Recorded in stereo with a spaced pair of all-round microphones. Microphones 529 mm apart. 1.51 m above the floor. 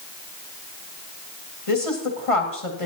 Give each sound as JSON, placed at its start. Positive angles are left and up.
{"t": 1.7, "sound": "a woman speaking", "side_deg": 80, "distance_m": 2.0}